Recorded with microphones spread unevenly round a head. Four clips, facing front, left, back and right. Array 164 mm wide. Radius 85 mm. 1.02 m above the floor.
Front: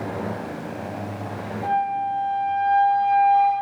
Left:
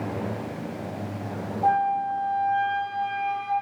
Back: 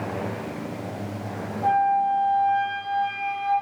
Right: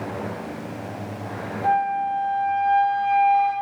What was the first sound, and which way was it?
A flute, 75° left.